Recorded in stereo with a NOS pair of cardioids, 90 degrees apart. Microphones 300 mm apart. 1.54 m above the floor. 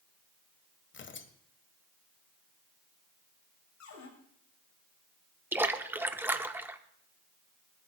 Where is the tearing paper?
40° left, 1.3 m.